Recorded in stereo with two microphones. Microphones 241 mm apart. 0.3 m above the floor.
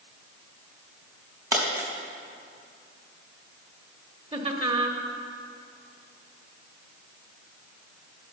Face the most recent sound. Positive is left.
turn(degrees=-25)  # may be behind; listen again after turning